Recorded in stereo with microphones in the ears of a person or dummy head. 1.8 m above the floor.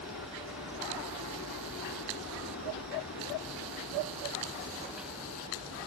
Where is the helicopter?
65° left (ahead or behind).